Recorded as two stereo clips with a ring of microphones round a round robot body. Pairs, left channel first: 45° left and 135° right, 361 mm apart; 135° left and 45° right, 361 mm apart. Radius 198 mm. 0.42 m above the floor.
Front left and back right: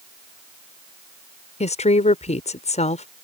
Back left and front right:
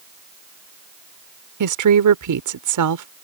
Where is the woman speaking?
25° right.